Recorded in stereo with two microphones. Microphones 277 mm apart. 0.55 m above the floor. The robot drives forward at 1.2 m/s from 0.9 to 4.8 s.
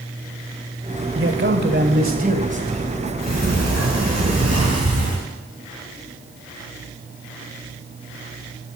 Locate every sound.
1.1 s a man speaking: 50° right (ahead or behind), 1.8 m; by 2.9 s 25° right (ahead or behind), 3.5 m
3.2 s a sliding door: 75° right (ahead or behind), 4 m; by 5.2 s 60° right (ahead or behind), 5 m